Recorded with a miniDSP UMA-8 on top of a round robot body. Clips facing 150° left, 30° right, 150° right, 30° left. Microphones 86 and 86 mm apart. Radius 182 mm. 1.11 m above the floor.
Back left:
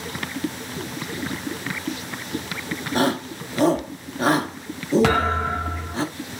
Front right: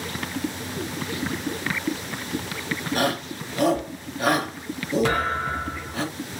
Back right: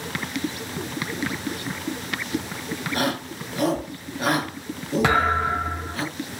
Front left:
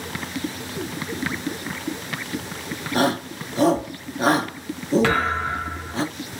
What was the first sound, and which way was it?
A shout, 90° left.